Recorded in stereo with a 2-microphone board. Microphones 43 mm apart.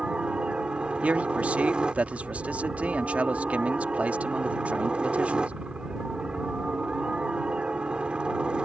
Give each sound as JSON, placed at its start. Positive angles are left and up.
{"t": 0.0, "sound": "a helicopter", "side_deg": -25}
{"t": 1.0, "sound": "a man speaking", "side_deg": -35}